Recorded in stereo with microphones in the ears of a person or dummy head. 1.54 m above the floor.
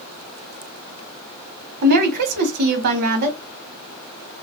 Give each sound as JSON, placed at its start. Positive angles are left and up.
{"t": 1.8, "sound": "a woman speaking", "side_deg": -50, "distance_m": 0.9}